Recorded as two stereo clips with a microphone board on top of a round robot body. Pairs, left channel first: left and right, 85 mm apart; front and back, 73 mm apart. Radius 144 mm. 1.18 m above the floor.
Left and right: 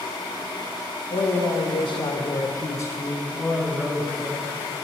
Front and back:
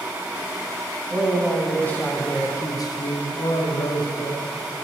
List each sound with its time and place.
1.1 s a man speaking: 85° left, 2.0 m; by 4.5 s 20° right, 1.7 m